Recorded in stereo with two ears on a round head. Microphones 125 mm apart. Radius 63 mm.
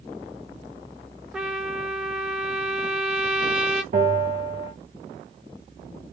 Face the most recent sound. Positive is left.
turn(degrees=-55)  # may be behind; listen again after turning